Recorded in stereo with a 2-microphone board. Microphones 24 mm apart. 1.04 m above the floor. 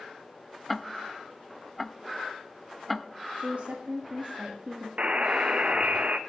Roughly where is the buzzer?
Right.